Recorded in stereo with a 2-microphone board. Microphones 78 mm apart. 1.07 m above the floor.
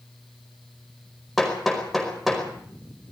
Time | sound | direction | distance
1.4 | hammering | centre (ahead or behind) | 5 m